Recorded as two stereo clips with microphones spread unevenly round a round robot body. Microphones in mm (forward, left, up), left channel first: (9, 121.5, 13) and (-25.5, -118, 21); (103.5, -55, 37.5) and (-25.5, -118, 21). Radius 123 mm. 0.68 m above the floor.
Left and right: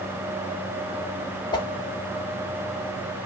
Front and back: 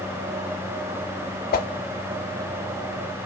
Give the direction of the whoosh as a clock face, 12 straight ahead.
12 o'clock.